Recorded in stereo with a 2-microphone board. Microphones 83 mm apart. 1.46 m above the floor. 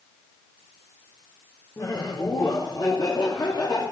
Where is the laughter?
45° left (ahead or behind), 3 m; by 3.8 s 60° left (ahead or behind), 4.5 m.